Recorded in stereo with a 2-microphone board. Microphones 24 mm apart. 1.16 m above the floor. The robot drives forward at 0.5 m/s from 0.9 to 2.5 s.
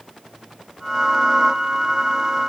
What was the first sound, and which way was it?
Only background noise.